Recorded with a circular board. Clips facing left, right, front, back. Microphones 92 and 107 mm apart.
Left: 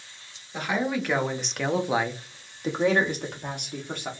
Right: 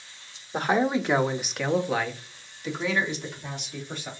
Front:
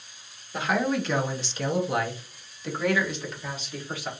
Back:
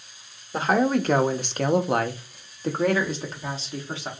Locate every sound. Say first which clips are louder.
0.5 s a man speaking: right 4 dB, back 4 dB; 135° right, 0.8 m; by 4.1 s 120° left, 1.5 m